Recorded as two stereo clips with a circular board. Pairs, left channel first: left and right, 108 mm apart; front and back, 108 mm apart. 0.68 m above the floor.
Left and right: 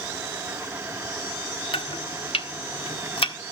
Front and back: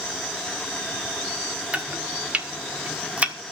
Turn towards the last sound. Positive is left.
turn(degrees=105)